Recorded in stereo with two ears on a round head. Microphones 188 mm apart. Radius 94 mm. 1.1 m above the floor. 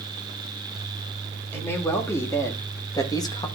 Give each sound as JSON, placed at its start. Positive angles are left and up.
{"t": 1.5, "sound": "a man speaking", "side_deg": 10, "distance_m": 2.5}